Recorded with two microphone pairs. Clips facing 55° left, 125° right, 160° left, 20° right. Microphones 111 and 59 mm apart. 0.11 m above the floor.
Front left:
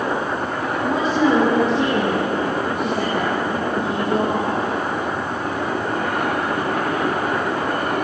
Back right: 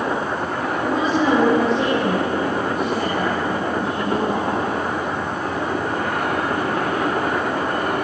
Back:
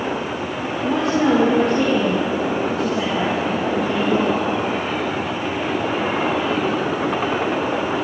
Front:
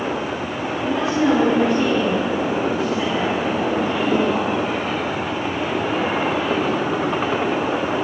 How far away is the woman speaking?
About 3.5 m.